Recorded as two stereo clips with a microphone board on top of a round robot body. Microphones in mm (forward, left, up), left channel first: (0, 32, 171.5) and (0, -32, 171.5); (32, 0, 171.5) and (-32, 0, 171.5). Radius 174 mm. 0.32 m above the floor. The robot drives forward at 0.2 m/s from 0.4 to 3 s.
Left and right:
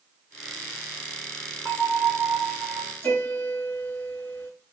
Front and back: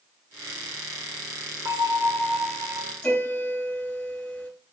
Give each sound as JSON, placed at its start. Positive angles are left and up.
{"t": 1.6, "sound": "a bell", "azimuth_deg": -165, "distance_m": 1.5}
{"t": 3.0, "sound": "a piano", "azimuth_deg": 55, "distance_m": 1.6}